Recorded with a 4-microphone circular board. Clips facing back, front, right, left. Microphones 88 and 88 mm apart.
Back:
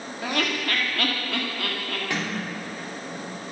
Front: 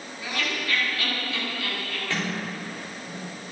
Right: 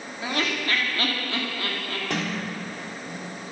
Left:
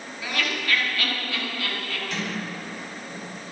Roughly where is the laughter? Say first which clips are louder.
Back 4 dB, right 2 dB; behind right.